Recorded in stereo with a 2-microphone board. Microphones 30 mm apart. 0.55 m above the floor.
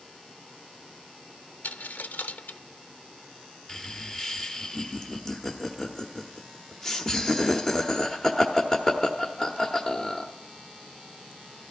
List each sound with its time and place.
1.6 s a dropped coin: 75° left (ahead or behind), 0.7 m
3.7 s laughter: 20° left (ahead or behind), 1.2 m